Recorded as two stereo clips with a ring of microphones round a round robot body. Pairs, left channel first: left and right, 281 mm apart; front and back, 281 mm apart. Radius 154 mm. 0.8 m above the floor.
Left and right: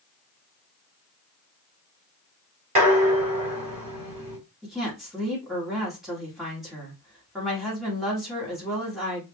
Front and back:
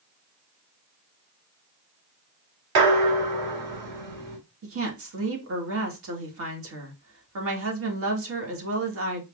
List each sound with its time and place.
2.8 s dishes clattering: 155° right, 2.0 m
4.6 s a woman speaking: straight behind, 1.2 m